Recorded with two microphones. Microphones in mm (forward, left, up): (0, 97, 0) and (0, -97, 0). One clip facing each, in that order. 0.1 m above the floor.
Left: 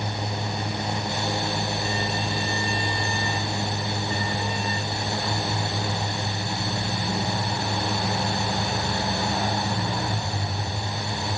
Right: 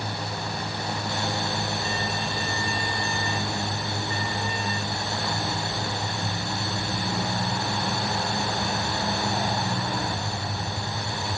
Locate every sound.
Only background noise.